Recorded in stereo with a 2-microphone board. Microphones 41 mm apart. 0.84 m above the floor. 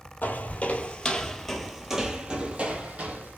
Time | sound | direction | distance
0.2 | footsteps | 40° left (ahead or behind) | 1.0 m